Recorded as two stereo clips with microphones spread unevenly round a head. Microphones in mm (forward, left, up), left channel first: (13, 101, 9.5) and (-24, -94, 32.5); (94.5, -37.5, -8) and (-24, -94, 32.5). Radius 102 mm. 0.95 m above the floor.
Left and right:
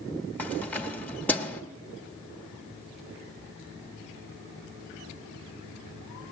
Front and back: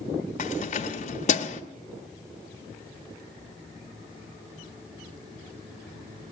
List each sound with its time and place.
0.4 s keys jangling: 5° right, 1.0 m